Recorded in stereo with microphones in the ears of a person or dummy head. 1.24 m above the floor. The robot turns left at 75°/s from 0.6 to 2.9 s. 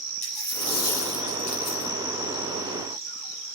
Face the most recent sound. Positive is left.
turn(degrees=-65)